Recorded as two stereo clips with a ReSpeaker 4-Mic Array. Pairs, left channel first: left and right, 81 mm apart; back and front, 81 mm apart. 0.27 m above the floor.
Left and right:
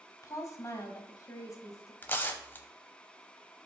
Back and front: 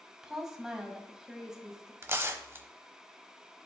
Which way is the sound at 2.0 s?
40° left.